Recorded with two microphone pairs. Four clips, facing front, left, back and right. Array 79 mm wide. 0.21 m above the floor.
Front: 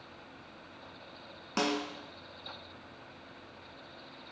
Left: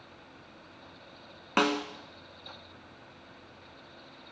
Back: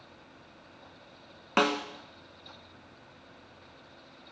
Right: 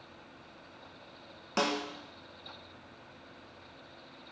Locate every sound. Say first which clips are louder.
1.6 s a snare drum: left 4 dB, back 5 dB; 140° left, 0.6 m